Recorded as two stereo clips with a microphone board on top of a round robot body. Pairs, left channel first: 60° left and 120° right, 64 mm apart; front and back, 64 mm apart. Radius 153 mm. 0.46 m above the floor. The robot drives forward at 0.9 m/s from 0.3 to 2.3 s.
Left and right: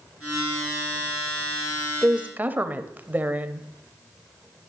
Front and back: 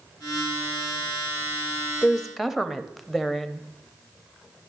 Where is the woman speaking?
65° right, 1.0 m; by 3.7 s 95° right, 1.0 m.